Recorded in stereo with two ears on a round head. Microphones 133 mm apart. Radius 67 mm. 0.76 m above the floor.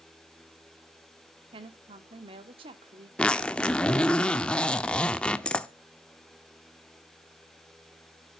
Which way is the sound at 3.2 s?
5° left (ahead or behind).